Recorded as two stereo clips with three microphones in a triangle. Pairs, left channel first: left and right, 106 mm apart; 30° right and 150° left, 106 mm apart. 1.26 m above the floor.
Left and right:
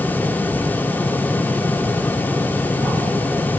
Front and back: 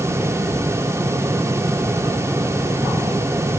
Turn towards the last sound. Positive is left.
No sound to turn to.